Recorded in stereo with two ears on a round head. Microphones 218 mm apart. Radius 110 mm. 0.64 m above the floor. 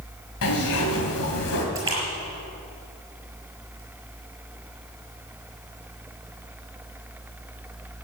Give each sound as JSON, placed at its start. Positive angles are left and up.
{"t": 0.4, "sound": "a zipper", "side_deg": 60, "distance_m": 3.0}
{"t": 1.8, "sound": "a splash", "side_deg": -15, "distance_m": 6.0}